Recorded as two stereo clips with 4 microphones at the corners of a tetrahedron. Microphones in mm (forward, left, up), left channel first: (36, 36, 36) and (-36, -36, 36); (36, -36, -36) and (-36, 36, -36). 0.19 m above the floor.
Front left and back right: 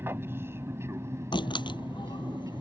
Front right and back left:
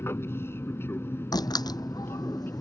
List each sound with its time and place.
0.0 s an aircraft: 90° right; by 2.6 s 100° right
1.3 s a door slam: 5° left